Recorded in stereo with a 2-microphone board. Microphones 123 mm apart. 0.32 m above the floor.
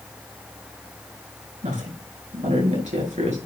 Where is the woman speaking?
75° right (ahead or behind), 5 m.